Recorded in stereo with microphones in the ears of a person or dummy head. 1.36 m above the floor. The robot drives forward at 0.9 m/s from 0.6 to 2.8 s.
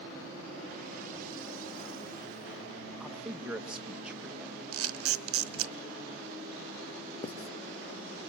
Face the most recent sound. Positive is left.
turn(degrees=35)  # may be behind; listen again after turning